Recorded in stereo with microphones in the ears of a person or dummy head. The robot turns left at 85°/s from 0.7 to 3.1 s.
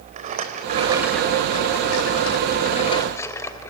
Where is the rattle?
145° right, 3 m; by 3.7 s 10° left, 3 m.